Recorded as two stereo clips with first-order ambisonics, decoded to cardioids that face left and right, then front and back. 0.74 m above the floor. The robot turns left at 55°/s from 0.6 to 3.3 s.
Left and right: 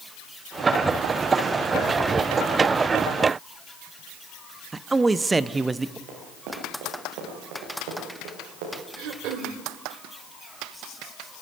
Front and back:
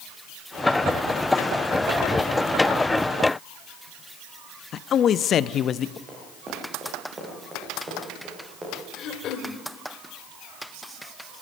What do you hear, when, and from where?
4.7 s a man speaking: 20° right, 0.5 m
6.1 s running footsteps: 110° right, 8 m; by 8.8 s 100° right, 9 m
9.0 s throat clearing: 50° right, 1.7 m